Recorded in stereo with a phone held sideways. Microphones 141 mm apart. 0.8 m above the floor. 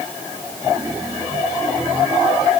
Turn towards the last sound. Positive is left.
No sound to turn to.